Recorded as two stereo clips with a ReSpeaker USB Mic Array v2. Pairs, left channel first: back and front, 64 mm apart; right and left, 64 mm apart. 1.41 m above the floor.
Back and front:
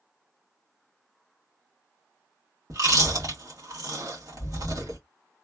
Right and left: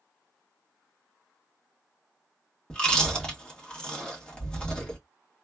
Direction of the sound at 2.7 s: 15° right.